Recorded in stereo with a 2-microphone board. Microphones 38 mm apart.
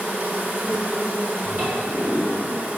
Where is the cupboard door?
40° right (ahead or behind), 3.5 m.